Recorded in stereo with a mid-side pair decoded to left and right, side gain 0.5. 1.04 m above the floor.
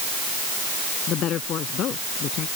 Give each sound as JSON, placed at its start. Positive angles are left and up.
{"t": 1.1, "sound": "a woman speaking", "azimuth_deg": 60}